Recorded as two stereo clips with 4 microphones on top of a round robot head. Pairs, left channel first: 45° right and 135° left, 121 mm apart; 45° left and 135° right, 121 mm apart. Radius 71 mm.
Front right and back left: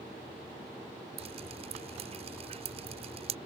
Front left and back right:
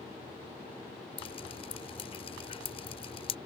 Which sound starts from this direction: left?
Dripping, at 1.2 s.